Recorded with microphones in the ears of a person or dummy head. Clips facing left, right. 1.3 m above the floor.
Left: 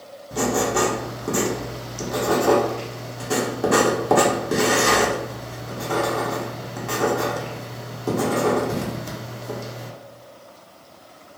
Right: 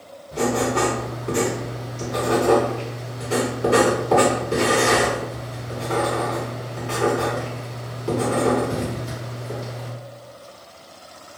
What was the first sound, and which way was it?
Writing, 75° left (ahead or behind).